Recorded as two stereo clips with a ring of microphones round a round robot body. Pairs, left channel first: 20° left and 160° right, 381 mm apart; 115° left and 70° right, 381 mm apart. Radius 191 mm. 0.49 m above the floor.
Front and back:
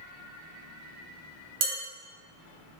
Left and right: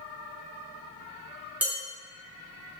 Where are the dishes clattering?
155° right, 0.9 m.